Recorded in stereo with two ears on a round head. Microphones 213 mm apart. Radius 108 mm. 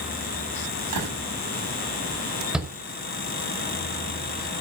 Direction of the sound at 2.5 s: 5° right (ahead or behind).